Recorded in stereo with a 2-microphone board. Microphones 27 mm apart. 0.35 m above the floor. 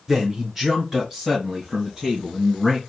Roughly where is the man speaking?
Centre.